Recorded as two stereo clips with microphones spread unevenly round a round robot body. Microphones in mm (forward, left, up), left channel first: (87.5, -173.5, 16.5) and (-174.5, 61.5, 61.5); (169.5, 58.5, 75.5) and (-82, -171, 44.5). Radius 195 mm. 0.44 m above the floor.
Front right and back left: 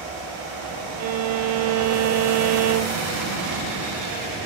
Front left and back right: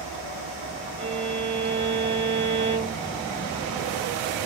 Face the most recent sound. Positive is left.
turn(degrees=170)